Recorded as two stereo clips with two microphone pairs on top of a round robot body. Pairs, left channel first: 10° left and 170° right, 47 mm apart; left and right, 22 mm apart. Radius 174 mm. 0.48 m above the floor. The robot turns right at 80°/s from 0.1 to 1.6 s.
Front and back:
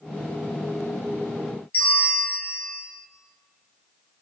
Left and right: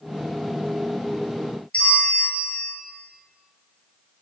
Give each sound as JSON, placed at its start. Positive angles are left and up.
{"t": 1.7, "sound": "a bell", "azimuth_deg": 55, "distance_m": 0.9}